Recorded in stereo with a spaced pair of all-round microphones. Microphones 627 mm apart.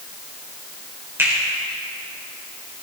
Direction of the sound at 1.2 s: 5° right (ahead or behind).